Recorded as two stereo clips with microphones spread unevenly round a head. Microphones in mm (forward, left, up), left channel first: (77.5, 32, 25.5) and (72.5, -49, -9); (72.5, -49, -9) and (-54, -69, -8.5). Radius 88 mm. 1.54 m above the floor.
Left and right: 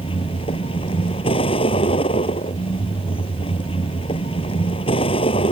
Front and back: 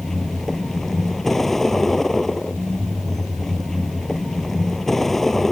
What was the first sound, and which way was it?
A vehicle, 95° left.